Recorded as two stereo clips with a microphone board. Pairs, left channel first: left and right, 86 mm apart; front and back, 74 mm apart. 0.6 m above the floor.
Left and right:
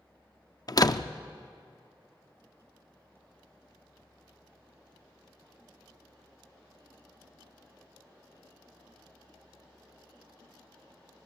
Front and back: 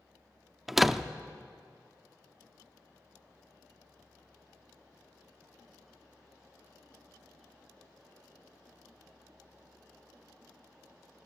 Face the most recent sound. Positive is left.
turn(degrees=95)